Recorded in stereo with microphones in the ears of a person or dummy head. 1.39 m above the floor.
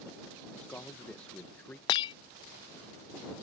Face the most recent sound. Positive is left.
turn(degrees=30)  # may be behind; listen again after turning